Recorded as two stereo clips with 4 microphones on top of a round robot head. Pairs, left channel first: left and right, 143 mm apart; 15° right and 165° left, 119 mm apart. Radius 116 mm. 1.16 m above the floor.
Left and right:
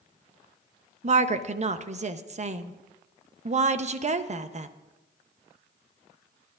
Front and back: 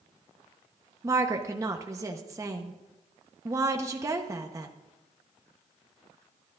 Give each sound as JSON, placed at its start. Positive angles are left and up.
{"t": 1.0, "sound": "a woman speaking", "azimuth_deg": -130, "distance_m": 0.9}